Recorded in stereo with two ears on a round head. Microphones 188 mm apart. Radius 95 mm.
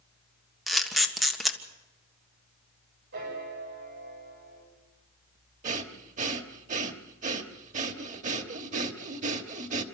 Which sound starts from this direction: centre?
A camera shutter, at 0.7 s.